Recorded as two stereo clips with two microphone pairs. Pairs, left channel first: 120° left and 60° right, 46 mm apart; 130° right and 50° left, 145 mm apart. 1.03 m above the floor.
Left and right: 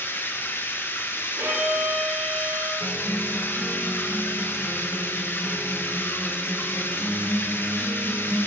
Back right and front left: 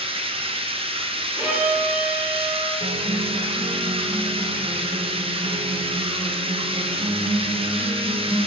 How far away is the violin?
About 2 m.